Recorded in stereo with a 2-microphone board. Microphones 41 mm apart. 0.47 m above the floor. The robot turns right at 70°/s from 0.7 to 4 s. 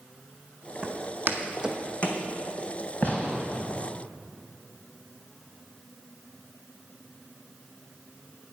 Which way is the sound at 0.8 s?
25° right (ahead or behind).